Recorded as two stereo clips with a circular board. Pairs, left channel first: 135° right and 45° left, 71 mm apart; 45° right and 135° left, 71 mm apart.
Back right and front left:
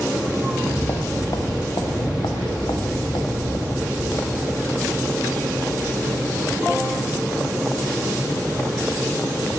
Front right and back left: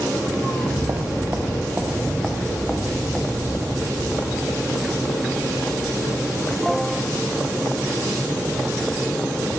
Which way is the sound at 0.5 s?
170° left.